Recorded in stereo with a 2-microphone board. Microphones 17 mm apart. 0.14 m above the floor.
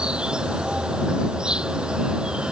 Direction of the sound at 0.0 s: 70° right (ahead or behind).